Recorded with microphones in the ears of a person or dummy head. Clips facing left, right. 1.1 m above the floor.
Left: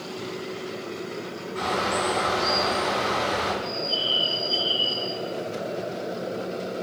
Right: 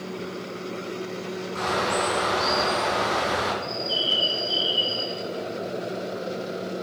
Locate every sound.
1.6 s a bird: 60° right (ahead or behind), 3.5 m
3.6 s a bird: 65° right (ahead or behind), 1.5 m